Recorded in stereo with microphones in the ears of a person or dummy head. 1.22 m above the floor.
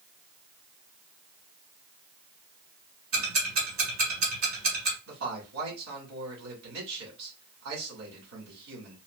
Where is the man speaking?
80° right, 2.0 m.